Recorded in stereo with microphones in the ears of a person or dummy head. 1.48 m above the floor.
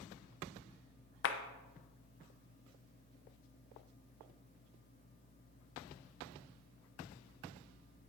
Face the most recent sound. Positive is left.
turn(degrees=65)  # may be behind; listen again after turning